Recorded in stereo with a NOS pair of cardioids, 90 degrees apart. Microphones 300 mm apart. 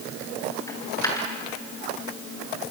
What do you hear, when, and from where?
0.7 s a dropped coin: 10° left, 6.5 m